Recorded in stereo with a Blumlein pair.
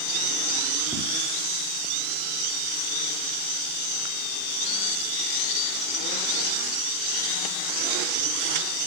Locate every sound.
0.9 s footsteps: 10° right, 4.5 m